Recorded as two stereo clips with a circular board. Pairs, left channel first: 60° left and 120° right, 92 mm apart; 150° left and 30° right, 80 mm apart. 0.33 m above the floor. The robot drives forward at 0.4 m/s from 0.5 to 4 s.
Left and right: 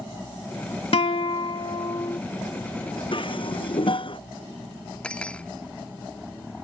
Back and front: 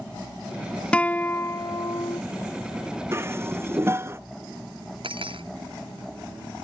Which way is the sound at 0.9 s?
70° left.